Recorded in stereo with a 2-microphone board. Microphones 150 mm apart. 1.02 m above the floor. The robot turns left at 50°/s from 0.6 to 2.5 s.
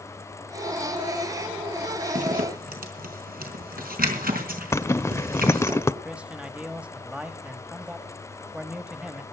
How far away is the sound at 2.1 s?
About 4 m.